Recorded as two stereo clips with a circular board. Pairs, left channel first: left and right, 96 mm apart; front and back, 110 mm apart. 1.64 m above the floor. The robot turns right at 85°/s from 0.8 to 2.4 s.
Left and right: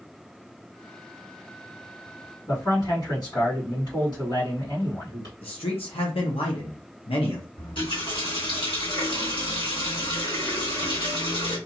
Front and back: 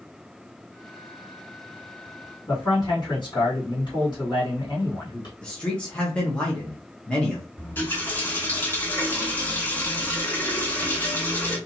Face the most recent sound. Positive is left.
turn(degrees=65)